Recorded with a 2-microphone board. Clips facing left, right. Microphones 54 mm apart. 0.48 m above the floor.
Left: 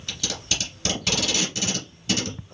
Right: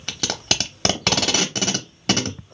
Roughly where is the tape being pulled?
Right.